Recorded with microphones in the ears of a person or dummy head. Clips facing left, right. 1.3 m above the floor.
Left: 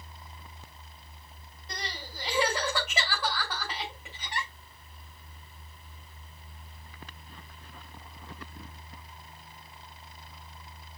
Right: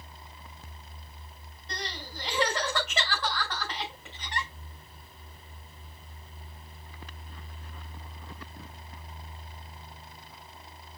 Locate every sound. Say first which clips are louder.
1.7 s crying: right 2 dB; centre (ahead or behind), 6 m